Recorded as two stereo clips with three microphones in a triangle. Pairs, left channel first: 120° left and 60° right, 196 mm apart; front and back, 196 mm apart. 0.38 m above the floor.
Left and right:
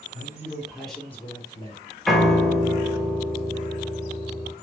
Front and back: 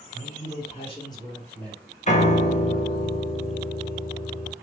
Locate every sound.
0.1 s a man speaking: 5° left, 1.7 m; by 1.8 s 85° left, 1.5 m
2.1 s a piano: 30° left, 0.7 m